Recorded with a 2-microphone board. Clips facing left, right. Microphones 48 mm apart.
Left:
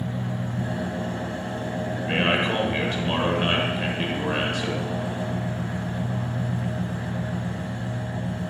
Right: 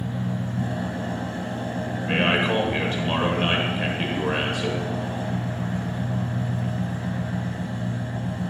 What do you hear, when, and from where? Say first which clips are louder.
0.0 s an engine running: right 1 dB; 10° left (ahead or behind), 2.5 m
2.0 s a man speaking: right 1 dB; 5° right (ahead or behind), 1.2 m